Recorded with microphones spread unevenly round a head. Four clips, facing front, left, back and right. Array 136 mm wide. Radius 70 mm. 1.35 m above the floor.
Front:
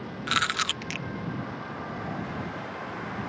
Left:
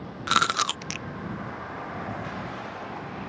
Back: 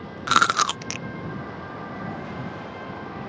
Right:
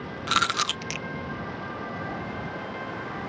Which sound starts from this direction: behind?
Chewing, at 0.3 s.